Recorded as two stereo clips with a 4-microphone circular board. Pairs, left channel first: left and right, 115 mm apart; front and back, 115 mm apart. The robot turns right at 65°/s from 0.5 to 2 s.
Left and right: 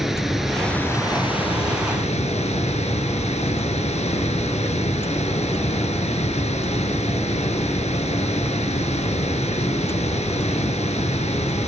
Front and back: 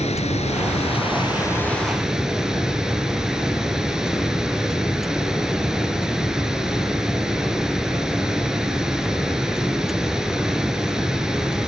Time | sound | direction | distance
0.0 | running water | straight ahead | 2.5 m